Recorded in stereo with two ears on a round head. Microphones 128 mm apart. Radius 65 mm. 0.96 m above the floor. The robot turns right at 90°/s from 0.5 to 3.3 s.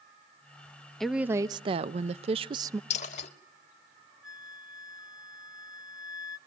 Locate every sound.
1.0 s a woman speaking: 175° left, 0.5 m; by 2.8 s 25° right, 0.5 m
2.9 s a dropped coin: 50° left (ahead or behind), 0.9 m; by 3.3 s 45° left (ahead or behind), 0.9 m
4.2 s a flute: 5° right (ahead or behind), 1.1 m